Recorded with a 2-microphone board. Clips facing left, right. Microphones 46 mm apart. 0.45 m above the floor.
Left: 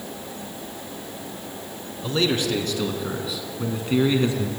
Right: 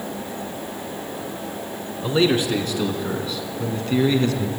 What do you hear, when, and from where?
2.0 s a man speaking: 15° right (ahead or behind), 4 m; by 4.5 s 25° left (ahead or behind), 4 m